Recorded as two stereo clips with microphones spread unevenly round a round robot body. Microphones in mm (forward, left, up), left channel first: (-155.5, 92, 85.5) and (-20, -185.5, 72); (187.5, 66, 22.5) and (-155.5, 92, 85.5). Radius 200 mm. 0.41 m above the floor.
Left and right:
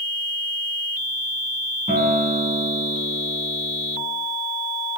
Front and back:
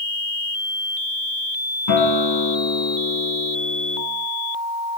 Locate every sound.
1.9 s a guitar: 5° left, 4.5 m